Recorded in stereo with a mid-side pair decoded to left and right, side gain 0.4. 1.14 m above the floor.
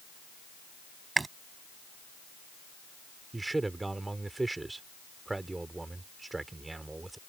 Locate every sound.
1.2 s chewing: 30° right
3.3 s a man speaking: 20° right